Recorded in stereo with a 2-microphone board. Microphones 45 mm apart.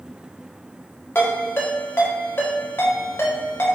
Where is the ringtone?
60° left (ahead or behind), 1.0 m.